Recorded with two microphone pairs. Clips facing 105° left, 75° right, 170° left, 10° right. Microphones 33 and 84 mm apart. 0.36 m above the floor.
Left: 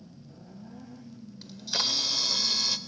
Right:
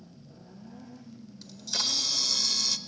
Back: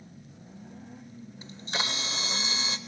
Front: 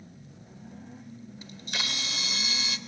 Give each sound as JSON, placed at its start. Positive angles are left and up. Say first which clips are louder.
{"t": 1.4, "sound": "a camera shutter", "louder": "left 2 dB, back 4 dB", "azimuth_deg": 155, "distance_m": 0.7}